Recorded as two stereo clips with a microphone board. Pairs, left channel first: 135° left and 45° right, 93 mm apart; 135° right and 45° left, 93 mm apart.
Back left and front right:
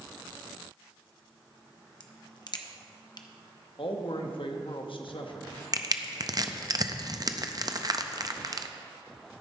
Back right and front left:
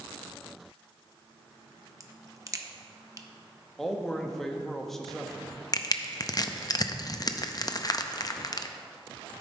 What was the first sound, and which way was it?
A crack, 100° left.